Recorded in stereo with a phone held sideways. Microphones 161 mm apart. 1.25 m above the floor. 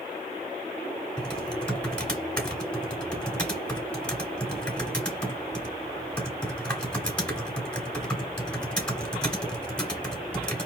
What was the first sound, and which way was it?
Typing on a keyboard, 10° left (ahead or behind).